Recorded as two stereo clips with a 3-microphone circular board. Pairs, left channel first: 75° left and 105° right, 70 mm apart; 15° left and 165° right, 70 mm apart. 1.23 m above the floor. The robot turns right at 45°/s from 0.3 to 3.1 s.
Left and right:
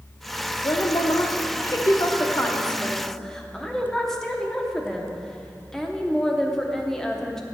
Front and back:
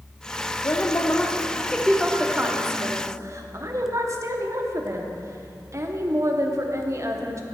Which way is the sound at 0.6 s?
50° left.